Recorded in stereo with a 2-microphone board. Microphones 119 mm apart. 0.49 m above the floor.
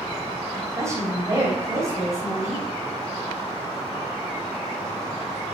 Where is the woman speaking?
25° right (ahead or behind), 2.5 m.